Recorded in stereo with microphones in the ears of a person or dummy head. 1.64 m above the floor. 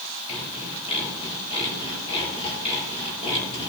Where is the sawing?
30° left (ahead or behind), 7 m.